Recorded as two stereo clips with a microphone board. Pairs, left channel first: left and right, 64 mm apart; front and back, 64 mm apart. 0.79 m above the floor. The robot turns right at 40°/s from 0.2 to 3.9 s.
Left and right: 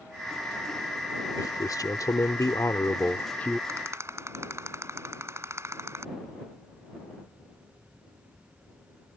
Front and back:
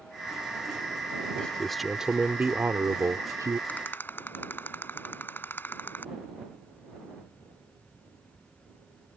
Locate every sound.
1.4 s a man speaking: 75° left; by 3.6 s 160° left
3.7 s a rattle: 65° right; by 6.1 s 55° right